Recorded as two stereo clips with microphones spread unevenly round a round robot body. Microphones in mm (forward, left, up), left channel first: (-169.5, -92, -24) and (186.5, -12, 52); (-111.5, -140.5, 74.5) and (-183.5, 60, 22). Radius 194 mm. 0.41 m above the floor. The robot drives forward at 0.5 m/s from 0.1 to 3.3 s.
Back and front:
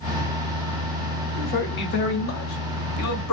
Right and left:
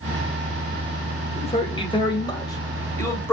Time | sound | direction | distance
1.4 | a man speaking | 135° right | 1.7 m